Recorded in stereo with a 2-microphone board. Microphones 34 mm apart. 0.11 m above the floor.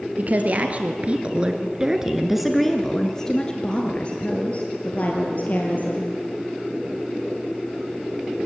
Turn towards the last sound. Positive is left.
turn(degrees=55)  # may be behind; listen again after turning